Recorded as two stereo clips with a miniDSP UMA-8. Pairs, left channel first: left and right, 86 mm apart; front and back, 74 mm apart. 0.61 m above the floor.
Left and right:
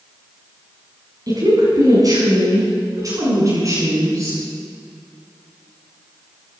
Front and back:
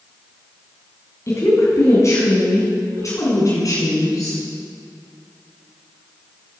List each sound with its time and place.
1.3 s a woman speaking: 50° right, 5.5 m; by 4.4 s 40° right, 7 m